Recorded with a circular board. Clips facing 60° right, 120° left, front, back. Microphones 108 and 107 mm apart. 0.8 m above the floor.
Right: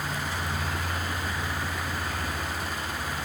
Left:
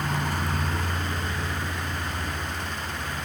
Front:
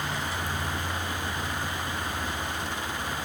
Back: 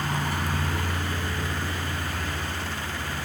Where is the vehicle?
135° left; by 3.3 s 160° right.